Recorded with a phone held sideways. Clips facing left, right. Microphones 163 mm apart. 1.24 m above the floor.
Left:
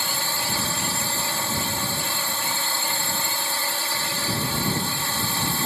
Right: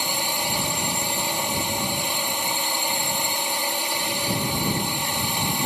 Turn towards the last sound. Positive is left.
turn(degrees=-20)  # may be behind; listen again after turning